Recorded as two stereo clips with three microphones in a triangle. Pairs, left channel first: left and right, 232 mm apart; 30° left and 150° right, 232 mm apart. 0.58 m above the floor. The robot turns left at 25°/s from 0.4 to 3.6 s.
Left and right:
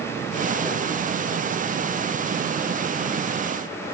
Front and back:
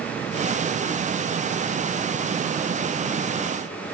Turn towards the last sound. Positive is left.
No sound to turn to.